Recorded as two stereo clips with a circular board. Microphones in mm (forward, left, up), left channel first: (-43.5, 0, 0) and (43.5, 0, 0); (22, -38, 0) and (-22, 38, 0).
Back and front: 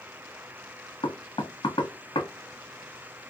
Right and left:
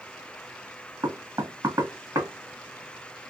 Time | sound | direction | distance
1.0 | knocking | 165° left | 1.1 m